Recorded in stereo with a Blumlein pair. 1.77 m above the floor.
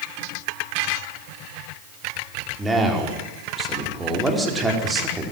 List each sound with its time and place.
2.6 s a man speaking: 10° right, 4.5 m